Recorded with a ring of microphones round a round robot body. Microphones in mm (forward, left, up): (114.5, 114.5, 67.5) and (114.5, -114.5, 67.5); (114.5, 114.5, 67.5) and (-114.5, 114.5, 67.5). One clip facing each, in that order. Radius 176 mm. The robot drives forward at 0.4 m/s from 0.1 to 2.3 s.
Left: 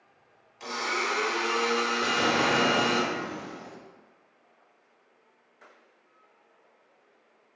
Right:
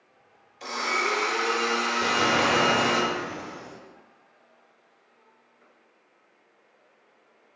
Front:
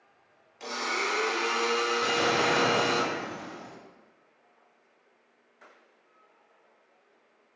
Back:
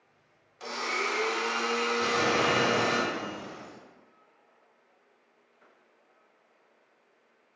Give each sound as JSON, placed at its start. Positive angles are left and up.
{"t": 0.6, "sound": "a blender", "azimuth_deg": 75, "distance_m": 1.9}
{"t": 2.0, "sound": "an explosion", "azimuth_deg": -160, "distance_m": 1.8}